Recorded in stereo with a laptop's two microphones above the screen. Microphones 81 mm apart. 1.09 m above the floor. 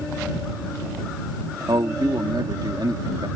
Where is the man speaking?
70° right (ahead or behind).